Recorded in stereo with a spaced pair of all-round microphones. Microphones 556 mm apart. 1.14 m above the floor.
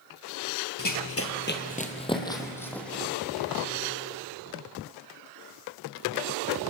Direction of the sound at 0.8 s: 35° left (ahead or behind).